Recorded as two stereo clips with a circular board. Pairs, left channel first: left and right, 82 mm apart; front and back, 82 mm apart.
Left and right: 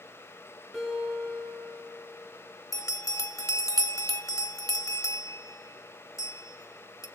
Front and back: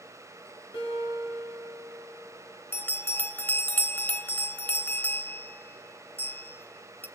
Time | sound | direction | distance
0.7 | a guitar | 5° right | 8 m
2.7 | a bell | 60° left | 0.7 m